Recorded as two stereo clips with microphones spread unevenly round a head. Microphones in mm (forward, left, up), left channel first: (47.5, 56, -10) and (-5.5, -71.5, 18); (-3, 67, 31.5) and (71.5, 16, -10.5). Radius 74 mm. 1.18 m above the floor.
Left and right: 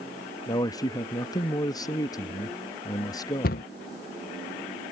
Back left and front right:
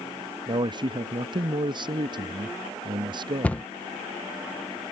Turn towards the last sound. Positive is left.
turn(degrees=65)